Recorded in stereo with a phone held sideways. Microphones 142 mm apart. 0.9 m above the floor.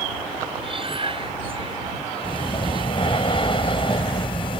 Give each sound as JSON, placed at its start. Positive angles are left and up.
{"t": 0.6, "sound": "breathing", "side_deg": -40}
{"t": 2.2, "sound": "breathing", "side_deg": 40}